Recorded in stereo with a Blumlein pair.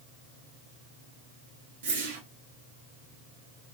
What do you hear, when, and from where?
1.8 s a whoosh: 55° right, 1.1 m